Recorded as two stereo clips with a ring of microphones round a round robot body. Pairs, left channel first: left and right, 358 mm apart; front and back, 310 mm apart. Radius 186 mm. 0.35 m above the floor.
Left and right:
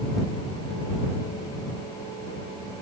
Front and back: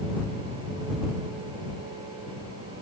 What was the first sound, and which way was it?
Only background noise.